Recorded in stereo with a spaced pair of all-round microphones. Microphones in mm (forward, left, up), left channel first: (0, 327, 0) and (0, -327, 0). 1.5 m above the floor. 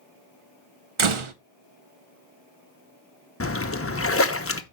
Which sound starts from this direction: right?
A door slam, at 1.0 s.